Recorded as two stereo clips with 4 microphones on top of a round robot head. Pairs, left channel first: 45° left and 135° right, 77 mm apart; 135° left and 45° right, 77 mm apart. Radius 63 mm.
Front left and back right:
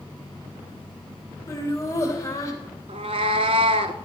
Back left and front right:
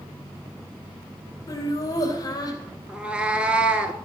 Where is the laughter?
100° left, 2.5 m; by 2.6 s 95° left, 3 m.